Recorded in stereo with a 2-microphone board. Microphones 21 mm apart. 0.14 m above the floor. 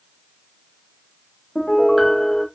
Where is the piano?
20° left (ahead or behind), 2 m.